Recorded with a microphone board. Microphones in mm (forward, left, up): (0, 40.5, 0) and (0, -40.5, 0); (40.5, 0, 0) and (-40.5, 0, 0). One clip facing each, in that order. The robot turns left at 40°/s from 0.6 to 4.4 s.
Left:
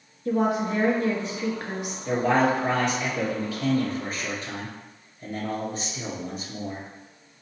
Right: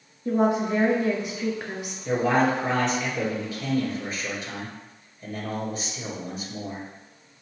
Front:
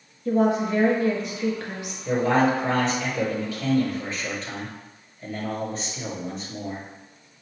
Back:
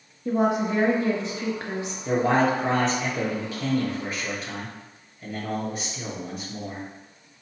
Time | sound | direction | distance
0.2 | a woman speaking | 130° right | 1.3 m
2.0 | a man speaking | 165° right | 1.9 m